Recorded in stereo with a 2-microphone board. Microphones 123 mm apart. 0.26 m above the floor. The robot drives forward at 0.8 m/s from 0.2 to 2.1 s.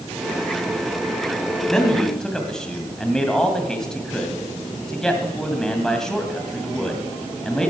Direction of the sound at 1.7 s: 5° left (ahead or behind).